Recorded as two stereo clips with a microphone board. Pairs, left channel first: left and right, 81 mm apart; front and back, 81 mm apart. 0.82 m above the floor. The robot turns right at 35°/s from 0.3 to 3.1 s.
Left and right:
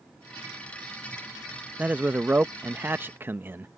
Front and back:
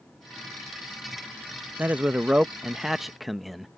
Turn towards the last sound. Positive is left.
turn(degrees=-95)